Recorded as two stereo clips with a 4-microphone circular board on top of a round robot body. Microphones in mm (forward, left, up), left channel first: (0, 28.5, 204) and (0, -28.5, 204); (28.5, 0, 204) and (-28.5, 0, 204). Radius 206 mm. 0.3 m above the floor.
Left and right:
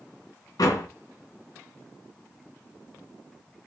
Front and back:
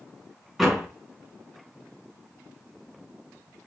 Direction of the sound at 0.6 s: 90° left.